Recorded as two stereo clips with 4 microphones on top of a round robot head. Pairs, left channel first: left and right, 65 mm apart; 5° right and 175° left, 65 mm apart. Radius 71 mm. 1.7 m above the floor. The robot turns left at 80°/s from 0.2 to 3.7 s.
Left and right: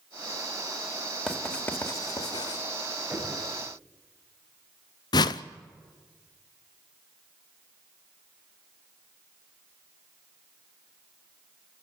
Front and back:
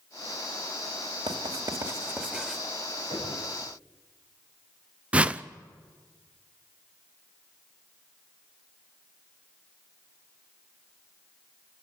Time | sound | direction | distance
1.3 | writing | 170° right | 1.8 m
3.1 | knocking | 160° right | 8.5 m
5.1 | a whoosh | 100° left | 0.5 m